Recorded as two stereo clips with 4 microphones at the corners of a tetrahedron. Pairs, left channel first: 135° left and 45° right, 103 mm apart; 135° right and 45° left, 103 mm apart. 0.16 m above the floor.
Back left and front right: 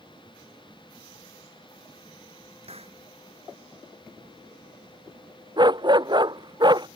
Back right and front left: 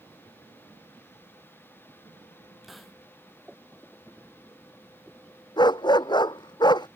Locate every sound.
2.6 s a hiss: 45° right
5.6 s a dog barking: 90° right